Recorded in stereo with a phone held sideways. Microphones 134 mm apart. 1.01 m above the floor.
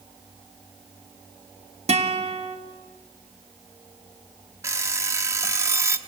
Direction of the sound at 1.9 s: 55° right (ahead or behind).